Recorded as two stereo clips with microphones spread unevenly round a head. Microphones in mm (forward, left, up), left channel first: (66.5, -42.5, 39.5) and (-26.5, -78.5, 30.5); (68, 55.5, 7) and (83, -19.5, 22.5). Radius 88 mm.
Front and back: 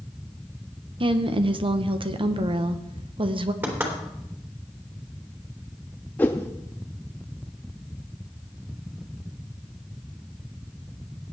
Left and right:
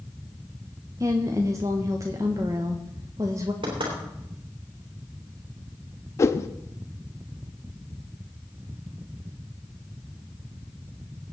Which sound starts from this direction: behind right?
A woman speaking, at 1.0 s.